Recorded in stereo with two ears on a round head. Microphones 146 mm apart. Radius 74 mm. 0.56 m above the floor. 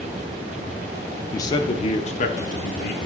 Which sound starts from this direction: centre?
A man speaking, at 1.3 s.